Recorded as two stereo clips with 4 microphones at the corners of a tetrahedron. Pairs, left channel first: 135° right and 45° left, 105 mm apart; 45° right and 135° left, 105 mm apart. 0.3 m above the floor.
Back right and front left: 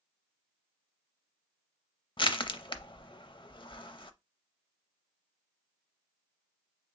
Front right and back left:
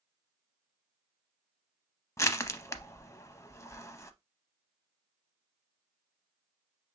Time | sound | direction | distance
2.2 | crushing | 100° right | 0.5 m